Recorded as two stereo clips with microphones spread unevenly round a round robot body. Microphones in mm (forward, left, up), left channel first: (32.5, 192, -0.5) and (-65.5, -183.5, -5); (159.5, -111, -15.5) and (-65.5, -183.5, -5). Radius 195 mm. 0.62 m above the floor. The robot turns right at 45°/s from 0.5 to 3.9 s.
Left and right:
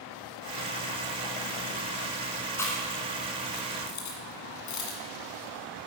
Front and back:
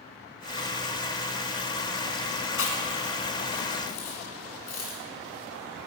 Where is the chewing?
10° right, 1.9 m; by 5.9 s 50° left, 1.9 m.